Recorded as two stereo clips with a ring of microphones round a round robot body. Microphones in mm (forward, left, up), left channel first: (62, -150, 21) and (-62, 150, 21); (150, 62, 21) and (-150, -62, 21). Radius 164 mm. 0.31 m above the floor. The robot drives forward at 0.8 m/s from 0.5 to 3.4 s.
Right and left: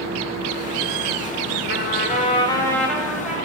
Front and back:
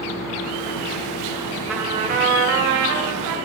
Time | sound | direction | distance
1.7 | a trumpet | 70° right | 0.9 m